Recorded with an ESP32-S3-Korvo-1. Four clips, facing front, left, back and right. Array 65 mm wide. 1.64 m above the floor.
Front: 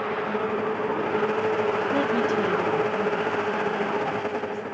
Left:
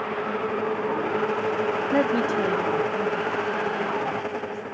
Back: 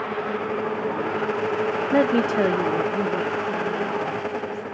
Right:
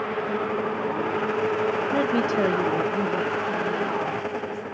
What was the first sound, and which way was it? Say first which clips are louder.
A woman speaking: left 3 dB, back 7 dB; 150° left.